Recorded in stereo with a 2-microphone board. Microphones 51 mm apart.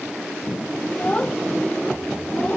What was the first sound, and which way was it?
A child speaking, 20° left (ahead or behind).